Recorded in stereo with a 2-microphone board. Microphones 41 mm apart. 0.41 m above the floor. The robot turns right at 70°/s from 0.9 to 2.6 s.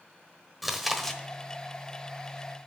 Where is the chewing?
Centre (ahead or behind), 1.1 m; by 1.2 s 20° left (ahead or behind), 1.1 m.